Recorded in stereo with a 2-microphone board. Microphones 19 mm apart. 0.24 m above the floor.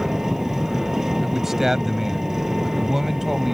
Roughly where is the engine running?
Right.